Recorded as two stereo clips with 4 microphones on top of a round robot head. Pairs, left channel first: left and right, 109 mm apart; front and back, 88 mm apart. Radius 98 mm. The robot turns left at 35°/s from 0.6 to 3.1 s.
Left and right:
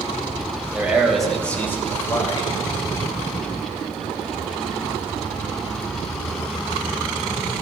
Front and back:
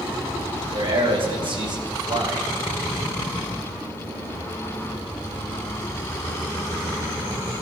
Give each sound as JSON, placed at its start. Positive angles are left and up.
{"t": 0.7, "sound": "a man speaking", "azimuth_deg": -165, "distance_m": 3.0}